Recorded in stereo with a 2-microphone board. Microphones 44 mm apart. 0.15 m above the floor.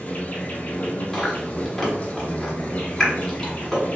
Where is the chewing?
10° left (ahead or behind), 1.2 m.